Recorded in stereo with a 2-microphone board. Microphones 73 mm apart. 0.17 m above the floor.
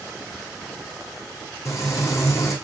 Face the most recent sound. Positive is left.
turn(degrees=45)  # may be behind; listen again after turning